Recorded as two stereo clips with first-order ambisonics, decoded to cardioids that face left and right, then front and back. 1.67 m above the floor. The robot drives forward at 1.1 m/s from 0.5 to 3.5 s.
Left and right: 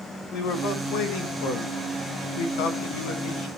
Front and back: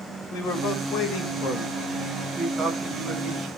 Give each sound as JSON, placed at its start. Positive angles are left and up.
{"t": 0.3, "sound": "a man speaking", "azimuth_deg": 45, "distance_m": 2.5}